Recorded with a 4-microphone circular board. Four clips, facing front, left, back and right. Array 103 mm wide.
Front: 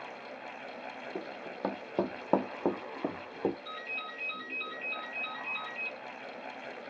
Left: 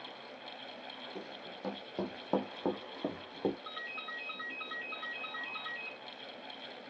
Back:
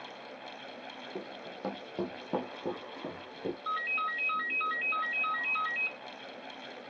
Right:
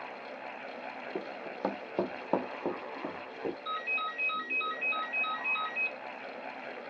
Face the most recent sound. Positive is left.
turn(degrees=-165)